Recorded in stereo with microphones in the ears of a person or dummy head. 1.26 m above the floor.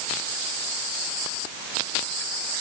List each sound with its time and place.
Only background noise.